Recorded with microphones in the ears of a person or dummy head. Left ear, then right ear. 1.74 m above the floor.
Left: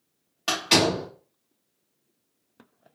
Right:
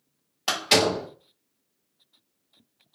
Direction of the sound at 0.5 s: 5° right (ahead or behind).